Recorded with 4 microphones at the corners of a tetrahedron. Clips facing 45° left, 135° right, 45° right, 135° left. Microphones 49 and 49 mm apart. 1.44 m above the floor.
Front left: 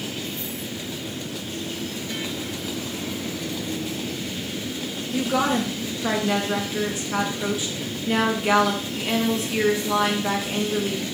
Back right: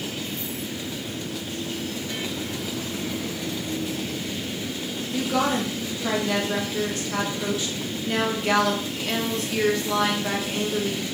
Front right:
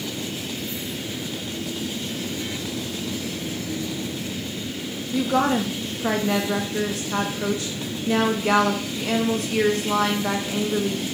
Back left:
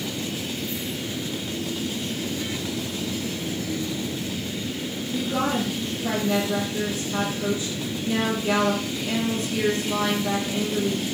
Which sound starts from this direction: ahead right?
A woman speaking, at 5.1 s.